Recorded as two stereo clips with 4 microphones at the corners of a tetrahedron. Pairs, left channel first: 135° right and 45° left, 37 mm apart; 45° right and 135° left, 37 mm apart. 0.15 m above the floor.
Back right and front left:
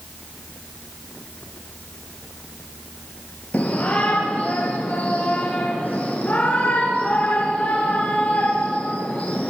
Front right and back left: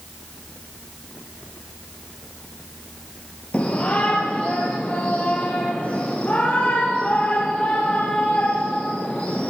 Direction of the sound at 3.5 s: 95° right.